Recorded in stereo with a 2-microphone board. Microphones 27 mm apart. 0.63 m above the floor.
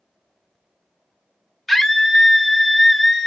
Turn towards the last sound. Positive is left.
turn(degrees=5)  # may be behind; listen again after turning